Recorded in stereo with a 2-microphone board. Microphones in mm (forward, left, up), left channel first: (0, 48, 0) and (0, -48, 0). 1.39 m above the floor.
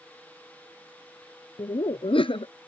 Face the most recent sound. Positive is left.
turn(degrees=65)  # may be behind; listen again after turning